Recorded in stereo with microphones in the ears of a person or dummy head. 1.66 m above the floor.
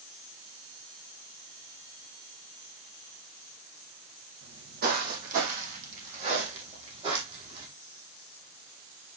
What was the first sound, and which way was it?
Footsteps, 50° right (ahead or behind).